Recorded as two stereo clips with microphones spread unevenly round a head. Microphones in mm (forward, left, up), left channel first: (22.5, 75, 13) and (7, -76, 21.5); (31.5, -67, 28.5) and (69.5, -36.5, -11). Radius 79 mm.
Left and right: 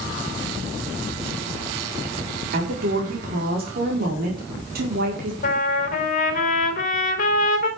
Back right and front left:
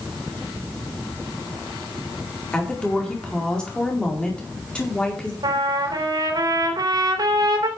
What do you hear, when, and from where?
2.5 s a woman speaking: 70° right, 4.5 m
5.4 s a trumpet: 45° left, 3.5 m